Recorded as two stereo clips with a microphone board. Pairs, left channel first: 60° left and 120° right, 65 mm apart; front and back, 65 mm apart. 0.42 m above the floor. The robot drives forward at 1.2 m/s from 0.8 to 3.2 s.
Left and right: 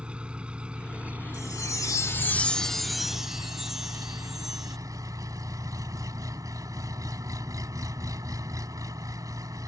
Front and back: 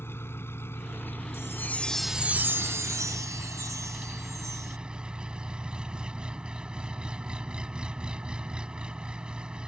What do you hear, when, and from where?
0.0 s an engine running: 50° right; by 9.7 s 105° right
1.3 s a chime: 35° left; by 4.8 s 155° left